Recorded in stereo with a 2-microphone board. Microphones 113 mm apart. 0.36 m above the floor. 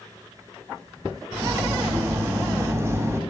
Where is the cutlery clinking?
25° right (ahead or behind), 1.3 m.